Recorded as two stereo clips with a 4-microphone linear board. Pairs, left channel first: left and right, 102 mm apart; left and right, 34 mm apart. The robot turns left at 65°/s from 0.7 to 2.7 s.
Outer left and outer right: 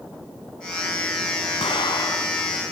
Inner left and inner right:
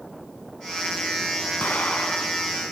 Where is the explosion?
70° left, 1.7 m; by 2.5 s 10° left, 1.7 m.